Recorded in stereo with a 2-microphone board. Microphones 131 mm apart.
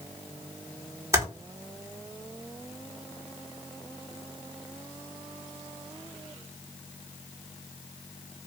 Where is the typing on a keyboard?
25° right (ahead or behind), 1.6 m.